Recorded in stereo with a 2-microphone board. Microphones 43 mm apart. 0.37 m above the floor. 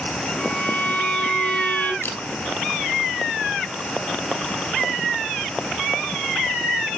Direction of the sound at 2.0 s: 70° left (ahead or behind).